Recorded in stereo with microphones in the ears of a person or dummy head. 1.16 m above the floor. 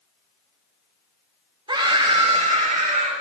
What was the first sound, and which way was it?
A scream, 30° right (ahead or behind).